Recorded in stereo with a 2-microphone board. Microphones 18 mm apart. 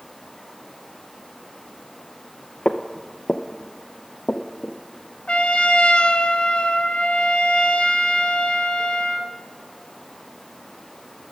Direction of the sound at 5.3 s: 80° left.